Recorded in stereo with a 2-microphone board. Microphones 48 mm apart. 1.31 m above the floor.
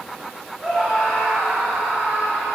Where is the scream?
20° right (ahead or behind), 5 m; by 2.5 s 45° right (ahead or behind), 5 m.